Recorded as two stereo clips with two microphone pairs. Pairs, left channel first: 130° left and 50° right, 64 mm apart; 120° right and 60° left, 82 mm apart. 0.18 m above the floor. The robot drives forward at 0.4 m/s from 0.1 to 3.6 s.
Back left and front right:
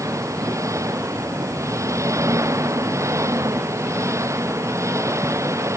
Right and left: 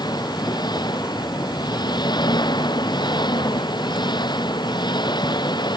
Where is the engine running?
90° right; by 5.8 s 95° right.